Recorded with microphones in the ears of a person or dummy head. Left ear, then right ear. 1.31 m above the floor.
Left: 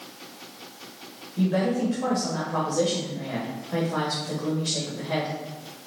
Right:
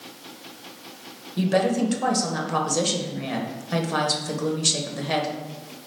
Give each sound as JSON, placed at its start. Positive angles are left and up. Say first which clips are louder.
{"t": 1.4, "sound": "a woman speaking", "louder": "right 4 dB", "side_deg": -70, "distance_m": 1.1}